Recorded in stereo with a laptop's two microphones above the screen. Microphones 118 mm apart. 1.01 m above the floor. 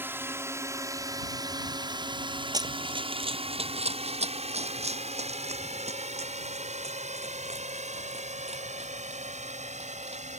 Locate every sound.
0.0 s a drone: 20° right (ahead or behind); by 10.4 s 75° right (ahead or behind)
2.5 s running footsteps: 30° right (ahead or behind); by 10.3 s 60° right (ahead or behind)